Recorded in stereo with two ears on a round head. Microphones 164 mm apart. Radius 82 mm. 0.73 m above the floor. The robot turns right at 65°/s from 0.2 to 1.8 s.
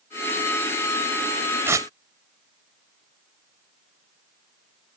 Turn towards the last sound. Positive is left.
turn(degrees=-20)  # may be behind; listen again after turning